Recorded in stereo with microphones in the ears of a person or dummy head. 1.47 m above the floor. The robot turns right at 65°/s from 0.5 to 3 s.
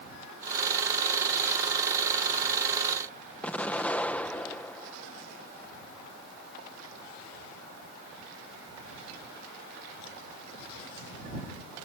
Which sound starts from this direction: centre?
An explosion, at 3.4 s.